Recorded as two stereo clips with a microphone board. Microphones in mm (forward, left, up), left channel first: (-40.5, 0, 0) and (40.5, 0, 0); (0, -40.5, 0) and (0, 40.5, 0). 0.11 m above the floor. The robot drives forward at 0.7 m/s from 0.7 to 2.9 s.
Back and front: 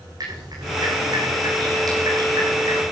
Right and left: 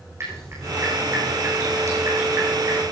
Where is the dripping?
35° left, 7.5 m; by 2.9 s 45° left, 6.5 m.